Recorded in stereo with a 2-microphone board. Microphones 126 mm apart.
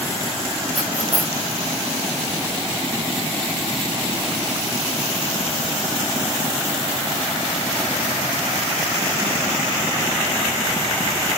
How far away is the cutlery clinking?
About 4.5 m.